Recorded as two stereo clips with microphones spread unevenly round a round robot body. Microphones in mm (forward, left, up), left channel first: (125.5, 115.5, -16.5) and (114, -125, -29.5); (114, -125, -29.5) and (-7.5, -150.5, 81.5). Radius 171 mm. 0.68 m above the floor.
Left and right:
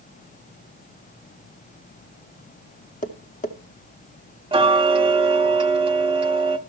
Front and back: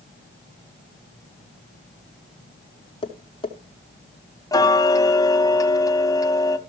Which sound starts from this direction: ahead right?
Ticking, at 4.5 s.